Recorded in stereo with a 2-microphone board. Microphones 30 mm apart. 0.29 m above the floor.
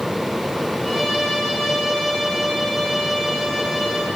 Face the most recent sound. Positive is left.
turn(degrees=10)  # may be behind; listen again after turning